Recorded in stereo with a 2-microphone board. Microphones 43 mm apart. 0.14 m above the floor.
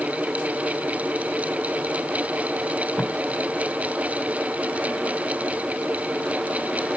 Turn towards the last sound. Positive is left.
turn(degrees=45)  # may be behind; listen again after turning